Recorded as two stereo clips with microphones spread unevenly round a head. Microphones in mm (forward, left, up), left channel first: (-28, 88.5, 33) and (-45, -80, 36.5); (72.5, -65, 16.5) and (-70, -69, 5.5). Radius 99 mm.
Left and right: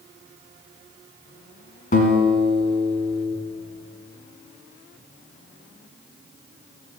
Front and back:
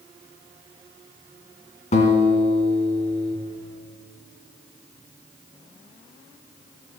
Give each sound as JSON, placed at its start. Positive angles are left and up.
{"t": 1.9, "sound": "a guitar", "azimuth_deg": 40, "distance_m": 1.6}